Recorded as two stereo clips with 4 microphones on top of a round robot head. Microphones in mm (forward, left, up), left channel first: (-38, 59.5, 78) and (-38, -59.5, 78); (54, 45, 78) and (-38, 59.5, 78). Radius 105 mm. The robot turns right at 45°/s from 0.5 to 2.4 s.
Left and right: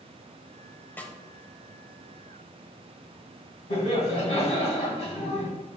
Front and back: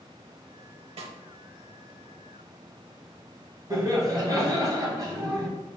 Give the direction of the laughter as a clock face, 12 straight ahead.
8 o'clock.